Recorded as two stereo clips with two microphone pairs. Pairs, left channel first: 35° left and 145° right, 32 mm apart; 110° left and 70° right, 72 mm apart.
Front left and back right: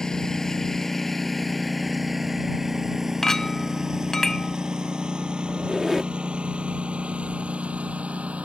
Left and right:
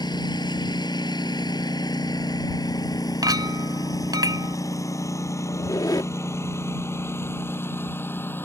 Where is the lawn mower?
105° left; by 8.4 s 170° left.